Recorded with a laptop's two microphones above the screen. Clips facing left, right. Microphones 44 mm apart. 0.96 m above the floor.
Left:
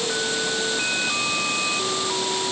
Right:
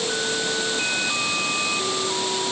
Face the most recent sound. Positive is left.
No sound to turn to.